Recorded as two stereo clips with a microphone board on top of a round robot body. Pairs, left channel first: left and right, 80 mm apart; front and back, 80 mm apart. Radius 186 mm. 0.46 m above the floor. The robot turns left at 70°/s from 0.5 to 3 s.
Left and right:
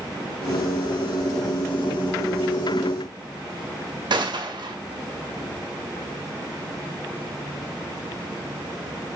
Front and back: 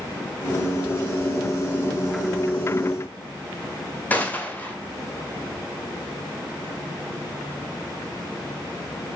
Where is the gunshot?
70° right, 1.8 m.